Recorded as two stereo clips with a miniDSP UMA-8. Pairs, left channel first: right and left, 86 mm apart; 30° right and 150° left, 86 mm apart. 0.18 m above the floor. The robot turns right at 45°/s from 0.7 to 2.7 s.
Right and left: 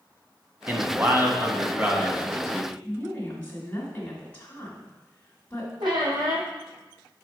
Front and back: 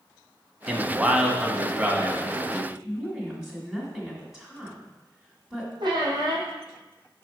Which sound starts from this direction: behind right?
A woman speaking, at 2.8 s.